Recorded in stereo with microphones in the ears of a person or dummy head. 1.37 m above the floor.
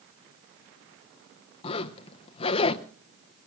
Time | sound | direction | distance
1.6 | a zipper | 30° left (ahead or behind) | 0.8 m